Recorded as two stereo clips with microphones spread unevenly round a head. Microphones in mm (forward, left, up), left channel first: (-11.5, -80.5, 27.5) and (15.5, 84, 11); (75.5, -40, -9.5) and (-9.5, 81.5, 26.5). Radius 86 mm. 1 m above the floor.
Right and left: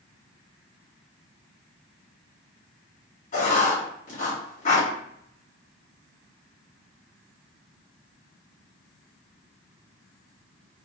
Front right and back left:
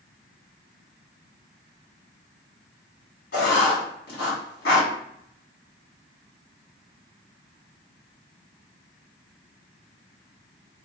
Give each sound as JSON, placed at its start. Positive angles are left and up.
{"t": 3.3, "sound": "writing", "azimuth_deg": -55, "distance_m": 2.0}